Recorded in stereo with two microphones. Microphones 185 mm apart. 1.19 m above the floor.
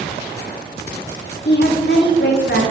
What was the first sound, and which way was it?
A woman speaking, 70° left (ahead or behind).